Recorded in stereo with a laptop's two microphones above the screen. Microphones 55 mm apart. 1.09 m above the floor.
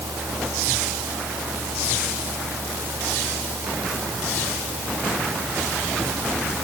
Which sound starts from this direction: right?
A fan, at 0.0 s.